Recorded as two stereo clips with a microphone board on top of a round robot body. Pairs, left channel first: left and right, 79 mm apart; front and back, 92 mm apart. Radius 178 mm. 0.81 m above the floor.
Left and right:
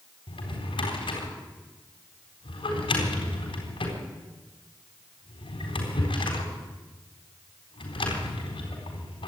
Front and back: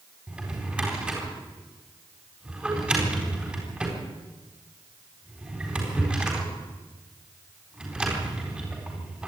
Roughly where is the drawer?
Left.